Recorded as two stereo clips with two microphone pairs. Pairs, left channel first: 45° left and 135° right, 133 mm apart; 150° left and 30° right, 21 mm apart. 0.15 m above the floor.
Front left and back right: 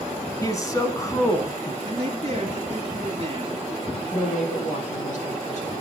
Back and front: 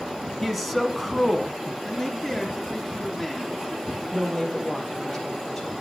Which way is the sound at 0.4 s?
60° left.